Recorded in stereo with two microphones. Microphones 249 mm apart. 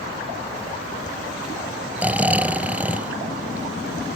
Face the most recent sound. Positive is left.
turn(degrees=-5)  # may be behind; listen again after turning